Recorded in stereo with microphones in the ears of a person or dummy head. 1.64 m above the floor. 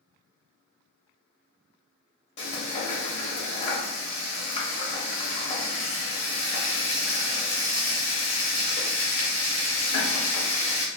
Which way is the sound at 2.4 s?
30° left (ahead or behind).